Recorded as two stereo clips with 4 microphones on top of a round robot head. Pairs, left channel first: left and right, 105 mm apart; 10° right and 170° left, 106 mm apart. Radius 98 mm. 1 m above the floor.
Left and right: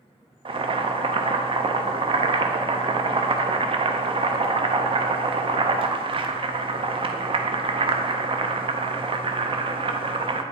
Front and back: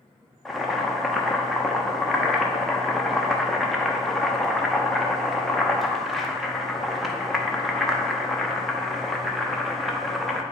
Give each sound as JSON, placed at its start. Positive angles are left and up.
{"t": 0.5, "sound": "boiling", "azimuth_deg": -95, "distance_m": 0.7}